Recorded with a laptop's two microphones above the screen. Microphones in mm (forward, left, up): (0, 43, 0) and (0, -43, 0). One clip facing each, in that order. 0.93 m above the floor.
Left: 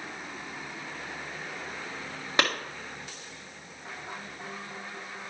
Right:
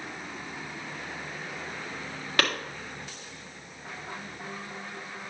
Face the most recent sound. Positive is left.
turn(degrees=20)  # may be behind; listen again after turning